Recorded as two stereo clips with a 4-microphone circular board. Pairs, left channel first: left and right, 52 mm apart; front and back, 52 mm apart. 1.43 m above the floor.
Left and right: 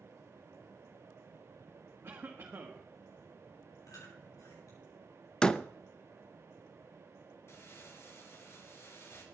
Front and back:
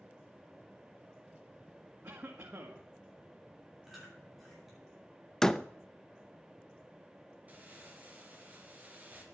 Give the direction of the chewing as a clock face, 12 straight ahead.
9 o'clock.